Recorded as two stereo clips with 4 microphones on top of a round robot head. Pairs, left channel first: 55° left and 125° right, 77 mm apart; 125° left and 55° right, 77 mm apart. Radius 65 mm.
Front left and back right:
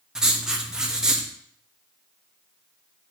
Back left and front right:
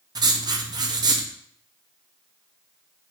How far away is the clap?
I don't hear a clap.